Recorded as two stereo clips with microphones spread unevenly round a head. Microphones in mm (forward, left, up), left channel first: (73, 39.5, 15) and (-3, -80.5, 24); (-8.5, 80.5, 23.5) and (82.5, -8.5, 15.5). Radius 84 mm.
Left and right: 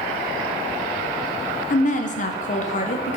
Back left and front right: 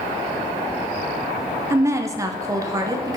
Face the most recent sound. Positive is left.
turn(degrees=20)